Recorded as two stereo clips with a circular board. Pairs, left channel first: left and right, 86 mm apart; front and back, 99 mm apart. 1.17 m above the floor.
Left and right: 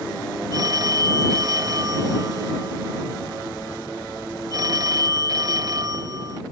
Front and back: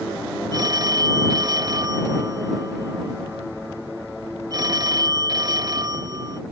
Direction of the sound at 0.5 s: 130° right.